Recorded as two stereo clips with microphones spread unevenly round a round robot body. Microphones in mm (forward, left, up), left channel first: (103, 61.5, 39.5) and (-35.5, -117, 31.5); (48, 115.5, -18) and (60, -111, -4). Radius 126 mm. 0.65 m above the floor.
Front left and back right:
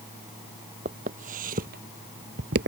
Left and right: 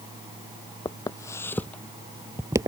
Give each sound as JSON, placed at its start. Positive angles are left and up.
{"t": 0.8, "sound": "footsteps", "azimuth_deg": 170}